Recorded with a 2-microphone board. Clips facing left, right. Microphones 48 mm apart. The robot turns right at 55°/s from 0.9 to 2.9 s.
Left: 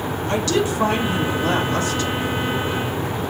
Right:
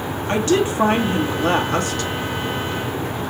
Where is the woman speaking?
145° right, 1.9 m; by 2.1 s 80° right, 1.9 m.